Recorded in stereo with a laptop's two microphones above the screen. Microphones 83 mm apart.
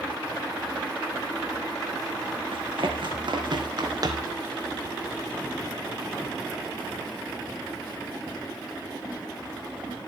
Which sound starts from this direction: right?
Running footsteps, at 2.5 s.